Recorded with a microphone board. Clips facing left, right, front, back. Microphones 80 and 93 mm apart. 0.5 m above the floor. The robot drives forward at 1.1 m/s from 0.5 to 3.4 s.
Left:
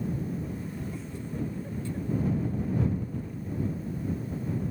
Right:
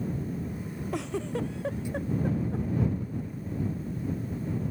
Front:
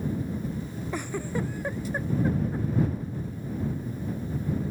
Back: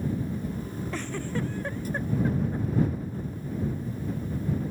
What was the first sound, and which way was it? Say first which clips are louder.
A giggle: right 5 dB, front 2 dB; 75° right.